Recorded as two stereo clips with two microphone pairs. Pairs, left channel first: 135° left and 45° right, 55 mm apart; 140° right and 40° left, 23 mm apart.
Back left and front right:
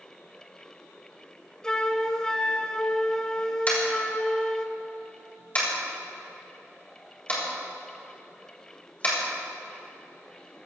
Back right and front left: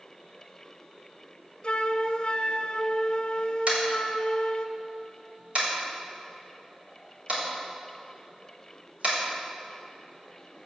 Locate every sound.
1.6 s a flute: 155° right, 0.7 m
3.7 s tapping: 75° left, 4 m